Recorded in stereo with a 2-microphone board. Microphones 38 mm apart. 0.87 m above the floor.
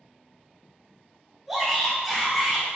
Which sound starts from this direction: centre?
A shout, at 1.5 s.